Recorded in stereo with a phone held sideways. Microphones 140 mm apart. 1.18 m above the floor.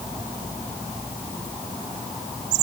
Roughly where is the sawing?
I don't hear sawing.